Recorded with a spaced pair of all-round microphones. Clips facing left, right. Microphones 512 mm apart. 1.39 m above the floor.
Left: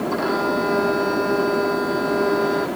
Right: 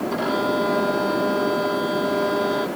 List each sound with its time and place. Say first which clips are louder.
0.1 s a violin: left 1 dB; 50° right (ahead or behind)